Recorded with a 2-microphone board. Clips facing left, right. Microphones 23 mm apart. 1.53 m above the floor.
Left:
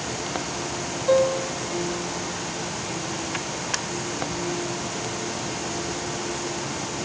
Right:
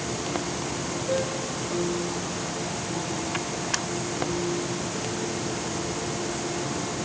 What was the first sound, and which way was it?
A piano, 60° left (ahead or behind).